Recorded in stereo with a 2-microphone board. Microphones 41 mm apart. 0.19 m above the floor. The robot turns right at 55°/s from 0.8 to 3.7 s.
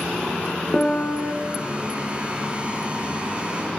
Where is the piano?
15° left (ahead or behind), 0.6 m; by 1.3 s 40° left (ahead or behind), 0.6 m.